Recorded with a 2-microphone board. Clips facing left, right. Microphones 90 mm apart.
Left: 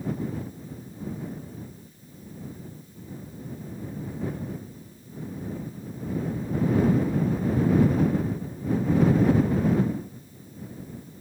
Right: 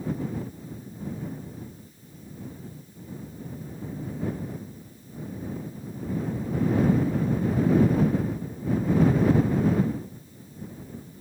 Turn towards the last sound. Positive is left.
No sound to turn to.